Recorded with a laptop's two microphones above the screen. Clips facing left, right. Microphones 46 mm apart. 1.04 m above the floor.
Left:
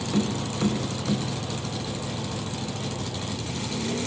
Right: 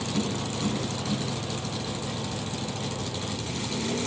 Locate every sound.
0.1 s tapping: 75° left (ahead or behind), 2.5 m